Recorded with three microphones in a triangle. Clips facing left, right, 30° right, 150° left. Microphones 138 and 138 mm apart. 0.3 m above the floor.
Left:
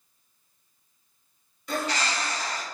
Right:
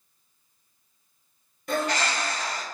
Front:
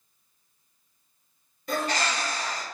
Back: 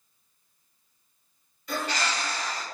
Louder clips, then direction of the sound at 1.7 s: Right 2 dB, front 2 dB; 65° right.